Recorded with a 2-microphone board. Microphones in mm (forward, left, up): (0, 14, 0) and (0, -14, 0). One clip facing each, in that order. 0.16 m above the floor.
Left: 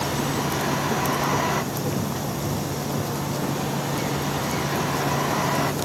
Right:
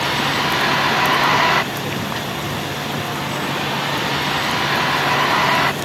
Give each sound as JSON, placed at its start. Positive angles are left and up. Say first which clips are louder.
{"t": 0.0, "sound": "a vehicle", "louder": "right 7 dB", "side_deg": -65}